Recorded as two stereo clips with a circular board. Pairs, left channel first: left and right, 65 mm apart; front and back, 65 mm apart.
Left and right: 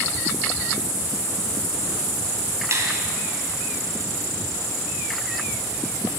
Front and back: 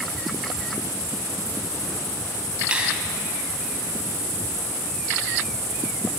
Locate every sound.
2.7 s a finger snap: 110° right, 1.3 m